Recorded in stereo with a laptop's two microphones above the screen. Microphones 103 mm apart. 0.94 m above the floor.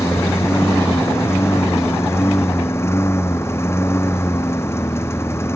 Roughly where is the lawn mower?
Left.